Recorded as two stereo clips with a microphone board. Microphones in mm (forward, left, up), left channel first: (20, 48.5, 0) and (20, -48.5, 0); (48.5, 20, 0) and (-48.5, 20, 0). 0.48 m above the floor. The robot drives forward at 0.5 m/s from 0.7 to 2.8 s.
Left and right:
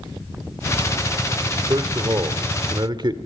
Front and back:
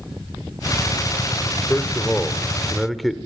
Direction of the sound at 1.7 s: 60° right.